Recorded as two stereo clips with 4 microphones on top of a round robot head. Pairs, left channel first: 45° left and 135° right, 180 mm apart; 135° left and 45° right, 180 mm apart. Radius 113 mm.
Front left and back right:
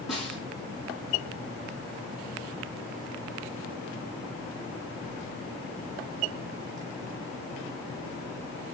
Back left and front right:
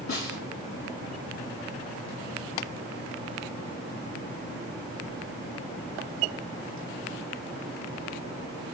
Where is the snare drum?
135° left, 6 m.